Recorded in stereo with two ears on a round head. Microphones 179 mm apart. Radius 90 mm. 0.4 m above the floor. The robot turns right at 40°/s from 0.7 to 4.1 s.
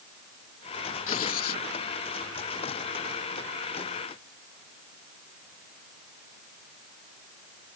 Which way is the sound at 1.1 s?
70° left (ahead or behind).